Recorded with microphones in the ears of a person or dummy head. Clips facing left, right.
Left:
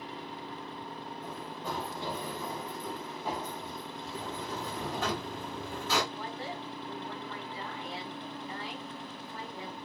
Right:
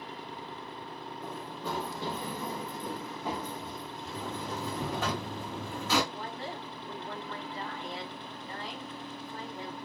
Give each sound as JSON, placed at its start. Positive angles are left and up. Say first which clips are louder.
{"t": 1.2, "sound": "running footsteps", "louder": "right 2 dB", "side_deg": -60, "distance_m": 5.5}
{"t": 4.1, "sound": "a buzzer", "louder": "right 1 dB", "side_deg": -65, "distance_m": 4.0}
{"t": 6.1, "sound": "a woman speaking", "louder": "even", "side_deg": -45, "distance_m": 5.5}